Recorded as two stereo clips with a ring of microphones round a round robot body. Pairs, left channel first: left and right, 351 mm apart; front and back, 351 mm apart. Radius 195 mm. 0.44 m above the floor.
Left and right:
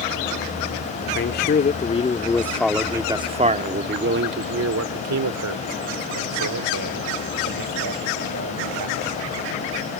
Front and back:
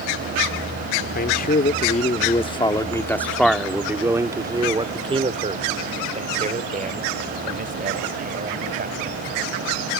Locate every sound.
1.1 s a man speaking: 50° left; by 9.2 s 115° right